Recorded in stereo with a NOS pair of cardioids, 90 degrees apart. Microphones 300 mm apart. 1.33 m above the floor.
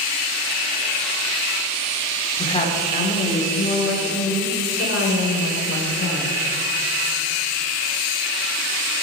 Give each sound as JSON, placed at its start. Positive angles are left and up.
{"t": 2.4, "sound": "a woman speaking", "azimuth_deg": 20, "distance_m": 3.5}